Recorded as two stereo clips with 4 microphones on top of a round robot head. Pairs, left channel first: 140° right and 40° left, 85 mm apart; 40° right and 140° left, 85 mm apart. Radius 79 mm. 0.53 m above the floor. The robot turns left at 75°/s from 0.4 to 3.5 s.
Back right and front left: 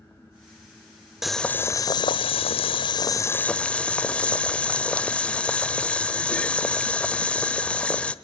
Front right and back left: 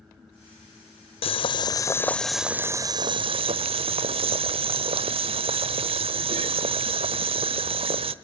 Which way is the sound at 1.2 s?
45° right.